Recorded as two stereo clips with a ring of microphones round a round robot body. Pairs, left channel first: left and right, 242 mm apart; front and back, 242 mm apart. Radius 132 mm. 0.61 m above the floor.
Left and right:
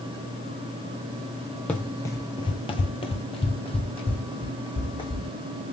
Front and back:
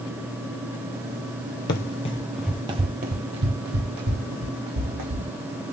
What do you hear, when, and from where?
1.7 s running footsteps: 5° left, 0.7 m; by 5.3 s 160° left, 1.9 m